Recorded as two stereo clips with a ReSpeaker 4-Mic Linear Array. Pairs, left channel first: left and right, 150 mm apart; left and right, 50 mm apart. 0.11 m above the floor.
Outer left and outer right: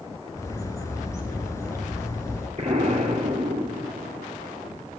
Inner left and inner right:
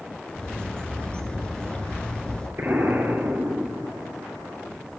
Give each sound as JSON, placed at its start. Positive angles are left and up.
{"t": 0.3, "sound": "a bird", "side_deg": 20, "distance_m": 1.4}
{"t": 2.6, "sound": "an explosion", "side_deg": -55, "distance_m": 2.5}